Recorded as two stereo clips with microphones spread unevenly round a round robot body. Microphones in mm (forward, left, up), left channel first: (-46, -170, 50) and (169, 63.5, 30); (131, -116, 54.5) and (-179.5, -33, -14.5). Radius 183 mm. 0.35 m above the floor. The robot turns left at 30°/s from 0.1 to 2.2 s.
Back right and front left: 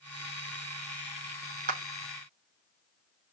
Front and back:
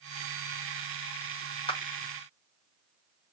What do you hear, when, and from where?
1.7 s a clap: 65° left, 0.8 m; by 1.8 s 60° left, 0.8 m